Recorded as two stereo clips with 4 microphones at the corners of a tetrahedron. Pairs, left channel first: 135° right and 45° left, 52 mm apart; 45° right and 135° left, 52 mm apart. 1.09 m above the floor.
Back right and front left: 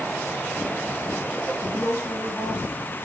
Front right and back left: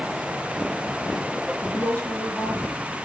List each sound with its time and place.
1.6 s a woman speaking: 105° right, 1.3 m